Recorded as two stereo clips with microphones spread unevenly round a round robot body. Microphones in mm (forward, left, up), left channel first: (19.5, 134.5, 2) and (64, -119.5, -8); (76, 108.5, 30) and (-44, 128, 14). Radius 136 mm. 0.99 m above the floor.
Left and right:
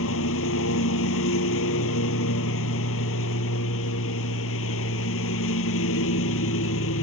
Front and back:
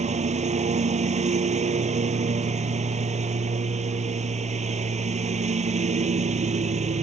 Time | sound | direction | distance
0.0 | a lawn mower | 145° left | ?